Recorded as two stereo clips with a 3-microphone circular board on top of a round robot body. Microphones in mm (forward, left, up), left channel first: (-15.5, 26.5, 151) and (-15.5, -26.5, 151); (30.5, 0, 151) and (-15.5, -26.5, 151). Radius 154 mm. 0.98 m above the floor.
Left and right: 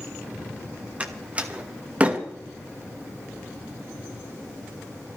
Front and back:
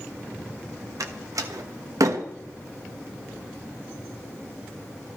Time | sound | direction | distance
1.0 | a door slam | 155° right | 1.4 m